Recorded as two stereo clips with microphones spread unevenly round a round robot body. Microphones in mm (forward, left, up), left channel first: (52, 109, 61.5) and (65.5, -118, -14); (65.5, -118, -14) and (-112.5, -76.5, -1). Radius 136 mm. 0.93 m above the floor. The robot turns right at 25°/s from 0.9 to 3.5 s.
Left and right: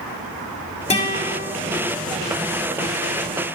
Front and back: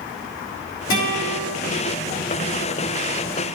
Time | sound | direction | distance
0.9 | a guitar | 30° left | 2 m